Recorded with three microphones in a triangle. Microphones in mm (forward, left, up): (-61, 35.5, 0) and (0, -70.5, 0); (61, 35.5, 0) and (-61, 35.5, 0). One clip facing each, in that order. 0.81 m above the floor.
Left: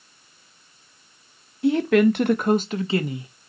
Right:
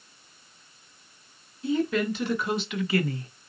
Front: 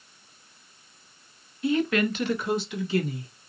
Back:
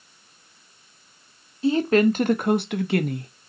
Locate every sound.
1.6 s a woman speaking: 120° left, 0.9 m; by 3.3 s 155° right, 0.8 m